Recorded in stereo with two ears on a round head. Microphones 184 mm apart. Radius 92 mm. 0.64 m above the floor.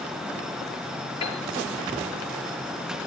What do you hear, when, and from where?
1.2 s a piano: 30° left (ahead or behind), 5.5 m